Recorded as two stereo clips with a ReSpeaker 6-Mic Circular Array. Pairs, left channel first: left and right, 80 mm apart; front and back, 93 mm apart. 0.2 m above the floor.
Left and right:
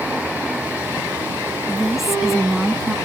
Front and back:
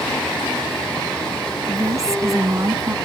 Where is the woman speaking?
175° right.